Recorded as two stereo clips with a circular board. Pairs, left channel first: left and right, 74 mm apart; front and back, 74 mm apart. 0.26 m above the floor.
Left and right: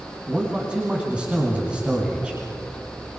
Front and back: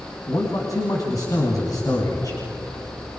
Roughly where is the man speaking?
Ahead.